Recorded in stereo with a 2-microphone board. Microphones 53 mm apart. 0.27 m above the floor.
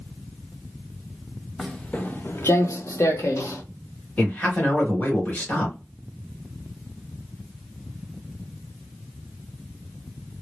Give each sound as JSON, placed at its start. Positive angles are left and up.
{"t": 1.6, "sound": "footsteps", "side_deg": 5, "distance_m": 0.6}
{"t": 4.2, "sound": "a man speaking", "side_deg": 30, "distance_m": 1.3}